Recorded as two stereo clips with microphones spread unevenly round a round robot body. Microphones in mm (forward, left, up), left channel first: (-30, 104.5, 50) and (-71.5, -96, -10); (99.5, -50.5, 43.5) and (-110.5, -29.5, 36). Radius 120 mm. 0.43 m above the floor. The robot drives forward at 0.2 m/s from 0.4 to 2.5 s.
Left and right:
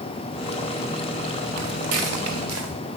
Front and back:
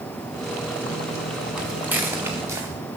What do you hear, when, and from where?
1.6 s footsteps: 100° right, 2 m; by 2.7 s 110° right, 3.5 m